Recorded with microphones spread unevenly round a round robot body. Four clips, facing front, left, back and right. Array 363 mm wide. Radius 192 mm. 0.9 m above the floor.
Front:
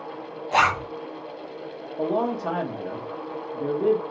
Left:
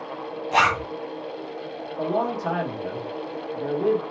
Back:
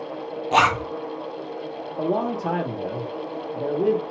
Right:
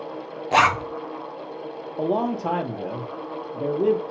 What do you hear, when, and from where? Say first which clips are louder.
0.5 s a zipper: right 2 dB, back 2 dB; 130° right, 0.9 m
2.0 s a man speaking: right 1 dB, back 1 dB; 135° right, 1.3 m